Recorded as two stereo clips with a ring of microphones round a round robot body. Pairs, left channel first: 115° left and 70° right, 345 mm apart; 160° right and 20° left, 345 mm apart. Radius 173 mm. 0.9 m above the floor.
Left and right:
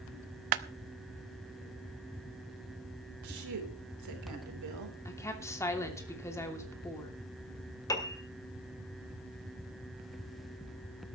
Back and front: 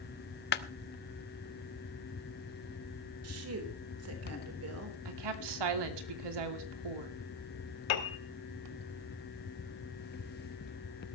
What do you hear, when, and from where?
0.5 s a clap: 95° right, 0.9 m
3.2 s a woman speaking: 25° right, 4 m
5.0 s a woman speaking: 30° left, 2.5 m
7.9 s a piano: 165° right, 1.8 m